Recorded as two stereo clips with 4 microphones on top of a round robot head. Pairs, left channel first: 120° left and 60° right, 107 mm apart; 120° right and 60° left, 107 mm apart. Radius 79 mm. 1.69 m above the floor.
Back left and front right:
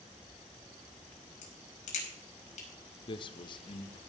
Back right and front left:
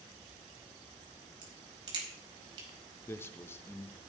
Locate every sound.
1.4 s a crack: 110° left, 5 m
3.1 s a man speaking: 170° left, 0.9 m